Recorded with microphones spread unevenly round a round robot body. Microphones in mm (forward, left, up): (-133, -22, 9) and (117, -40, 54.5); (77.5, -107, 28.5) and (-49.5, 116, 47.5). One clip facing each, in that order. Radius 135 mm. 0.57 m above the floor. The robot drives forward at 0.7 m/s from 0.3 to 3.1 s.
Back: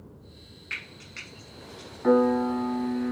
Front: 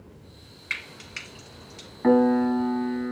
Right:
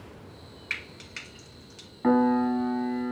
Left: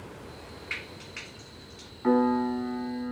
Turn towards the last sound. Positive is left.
turn(degrees=-80)